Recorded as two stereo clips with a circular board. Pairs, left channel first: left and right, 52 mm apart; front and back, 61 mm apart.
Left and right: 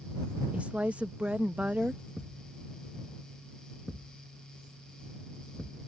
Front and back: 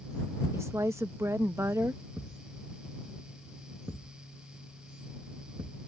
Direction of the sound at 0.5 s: 150° right.